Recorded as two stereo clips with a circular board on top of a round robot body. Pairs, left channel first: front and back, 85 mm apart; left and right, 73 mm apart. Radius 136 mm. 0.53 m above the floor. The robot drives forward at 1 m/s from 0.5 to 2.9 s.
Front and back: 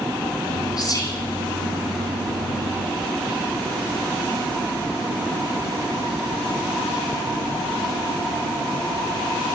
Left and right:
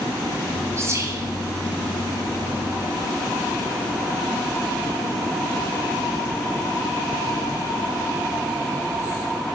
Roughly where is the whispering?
Ahead right.